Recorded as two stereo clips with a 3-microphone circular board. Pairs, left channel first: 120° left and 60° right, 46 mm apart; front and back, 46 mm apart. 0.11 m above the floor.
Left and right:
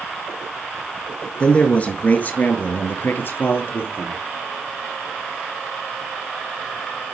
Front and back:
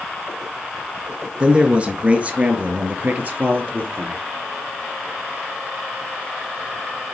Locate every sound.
1.4 s a man speaking: 140° left, 1.6 m; by 4.2 s 135° left, 3 m